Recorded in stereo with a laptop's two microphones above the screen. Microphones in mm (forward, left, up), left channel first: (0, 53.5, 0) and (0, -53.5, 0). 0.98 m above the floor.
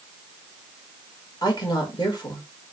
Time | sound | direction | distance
1.4 | a woman speaking | 40° left (ahead or behind) | 1.8 m